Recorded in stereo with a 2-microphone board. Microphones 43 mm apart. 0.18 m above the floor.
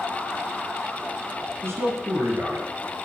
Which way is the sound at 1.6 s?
70° right (ahead or behind).